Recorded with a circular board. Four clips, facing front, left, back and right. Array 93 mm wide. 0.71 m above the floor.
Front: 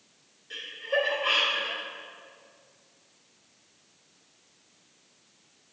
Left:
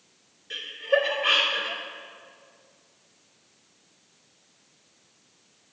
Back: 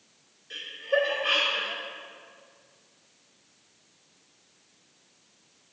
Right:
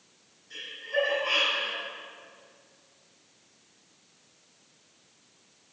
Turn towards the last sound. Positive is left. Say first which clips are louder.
# left 7 dB, back 2 dB
turn(degrees=100)